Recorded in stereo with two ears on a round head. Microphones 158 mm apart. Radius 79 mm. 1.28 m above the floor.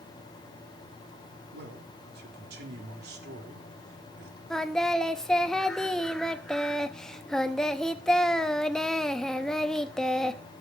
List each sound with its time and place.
1.5 s a man speaking: 60° right (ahead or behind), 4 m
4.5 s singing: 5° left (ahead or behind), 0.9 m